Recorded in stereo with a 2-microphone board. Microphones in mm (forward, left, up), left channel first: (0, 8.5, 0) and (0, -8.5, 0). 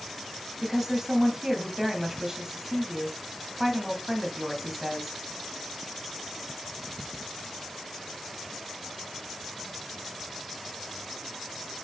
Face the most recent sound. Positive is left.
turn(degrees=-20)  # may be behind; listen again after turning